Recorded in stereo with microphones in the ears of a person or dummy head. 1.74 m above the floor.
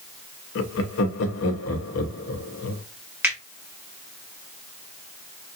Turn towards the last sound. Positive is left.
turn(degrees=-5)  # may be behind; listen again after turning